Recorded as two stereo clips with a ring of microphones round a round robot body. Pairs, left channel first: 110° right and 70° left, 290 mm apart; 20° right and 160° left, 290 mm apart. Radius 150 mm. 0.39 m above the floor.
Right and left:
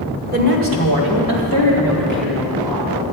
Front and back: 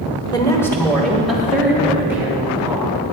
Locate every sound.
0.3 s a woman speaking: 40° left, 1.4 m; by 2.9 s 75° left, 4 m